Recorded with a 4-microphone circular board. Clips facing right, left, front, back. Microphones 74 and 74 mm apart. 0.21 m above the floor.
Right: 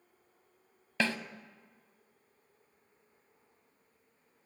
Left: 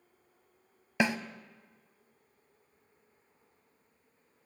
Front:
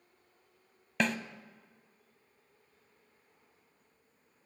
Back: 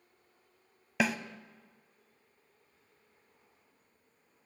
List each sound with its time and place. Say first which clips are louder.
1.0 s a snare drum: left 3 dB, back 1 dB; 110° left, 0.5 m